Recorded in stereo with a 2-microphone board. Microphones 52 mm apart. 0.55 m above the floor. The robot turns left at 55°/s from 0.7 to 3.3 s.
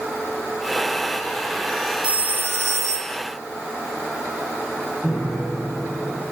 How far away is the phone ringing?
About 1.3 m.